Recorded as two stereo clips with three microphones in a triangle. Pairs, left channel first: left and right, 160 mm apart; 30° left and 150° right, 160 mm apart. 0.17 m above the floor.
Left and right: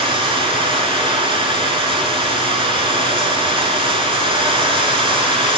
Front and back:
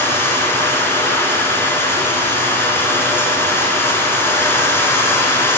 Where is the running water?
45° right, 1.3 m.